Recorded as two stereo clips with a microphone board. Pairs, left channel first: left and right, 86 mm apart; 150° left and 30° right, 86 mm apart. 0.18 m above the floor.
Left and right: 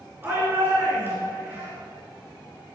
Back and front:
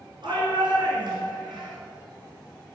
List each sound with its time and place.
0.2 s a shout: 30° right, 2.5 m